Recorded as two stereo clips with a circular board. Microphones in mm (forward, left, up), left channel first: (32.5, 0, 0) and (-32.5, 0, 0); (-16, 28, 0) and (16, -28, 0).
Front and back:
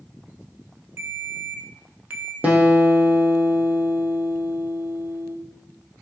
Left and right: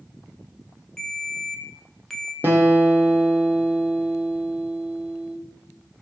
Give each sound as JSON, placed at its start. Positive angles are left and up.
{"t": 1.0, "sound": "a ringtone", "azimuth_deg": -155, "distance_m": 0.5}
{"t": 2.4, "sound": "a guitar", "azimuth_deg": -115, "distance_m": 0.7}